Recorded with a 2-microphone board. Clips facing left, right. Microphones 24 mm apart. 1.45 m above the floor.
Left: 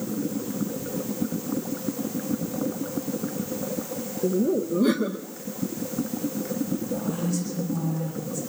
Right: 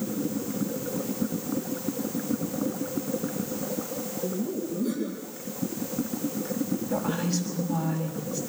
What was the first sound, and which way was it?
Laughter, 70° left (ahead or behind).